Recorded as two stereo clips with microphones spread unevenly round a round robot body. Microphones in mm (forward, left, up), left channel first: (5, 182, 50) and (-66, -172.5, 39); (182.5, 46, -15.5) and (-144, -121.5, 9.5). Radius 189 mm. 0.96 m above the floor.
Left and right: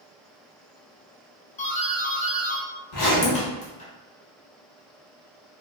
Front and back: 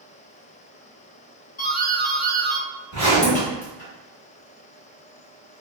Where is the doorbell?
30° left, 0.8 m.